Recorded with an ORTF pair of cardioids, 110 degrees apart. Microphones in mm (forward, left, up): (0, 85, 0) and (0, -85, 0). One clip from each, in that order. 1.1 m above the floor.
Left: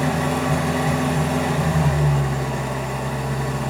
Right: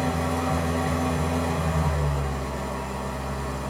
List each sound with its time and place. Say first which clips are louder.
0.0 s an engine running: left 4 dB; 35° left, 0.7 m